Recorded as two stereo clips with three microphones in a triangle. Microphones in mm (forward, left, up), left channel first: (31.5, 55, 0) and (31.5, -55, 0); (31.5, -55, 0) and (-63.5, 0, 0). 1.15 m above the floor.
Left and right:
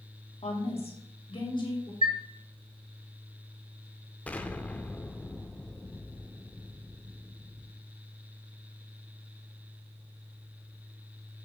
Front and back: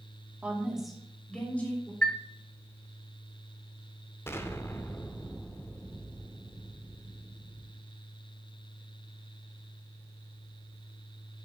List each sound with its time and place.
0.4 s a woman speaking: 70° left, 2 m; by 1.9 s 40° left, 3 m
2.0 s a chime: 115° right, 0.9 m
4.3 s an explosion: 20° left, 0.9 m